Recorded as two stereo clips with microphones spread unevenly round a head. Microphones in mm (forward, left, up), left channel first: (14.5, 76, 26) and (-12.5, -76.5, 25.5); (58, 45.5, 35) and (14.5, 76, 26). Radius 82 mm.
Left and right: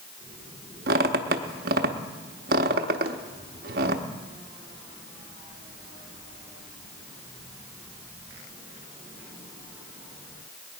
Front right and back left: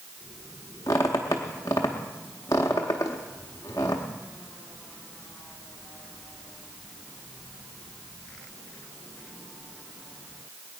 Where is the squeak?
75° right, 0.9 m.